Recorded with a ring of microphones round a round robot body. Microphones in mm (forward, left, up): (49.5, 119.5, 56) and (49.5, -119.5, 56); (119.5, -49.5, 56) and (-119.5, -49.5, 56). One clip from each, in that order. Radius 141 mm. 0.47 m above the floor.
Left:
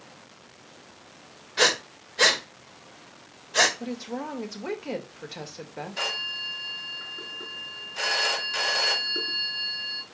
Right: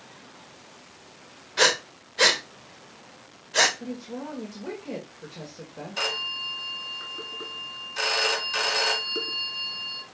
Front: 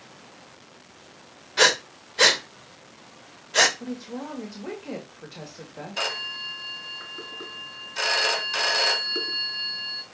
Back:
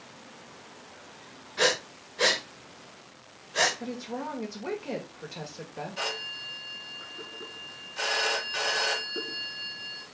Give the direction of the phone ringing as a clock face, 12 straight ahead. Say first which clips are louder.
Right 1 dB, front 5 dB; 1 o'clock.